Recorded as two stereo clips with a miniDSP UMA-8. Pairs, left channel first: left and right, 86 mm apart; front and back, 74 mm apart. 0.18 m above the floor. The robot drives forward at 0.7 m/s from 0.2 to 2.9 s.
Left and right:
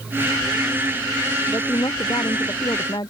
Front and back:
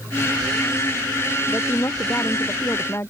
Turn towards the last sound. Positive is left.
turn(degrees=55)